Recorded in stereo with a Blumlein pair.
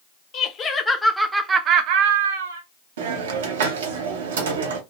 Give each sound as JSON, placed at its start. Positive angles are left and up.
{"t": 0.3, "sound": "laughter", "azimuth_deg": 30, "distance_m": 0.9}
{"t": 3.0, "sound": "a hiss", "azimuth_deg": -60, "distance_m": 0.7}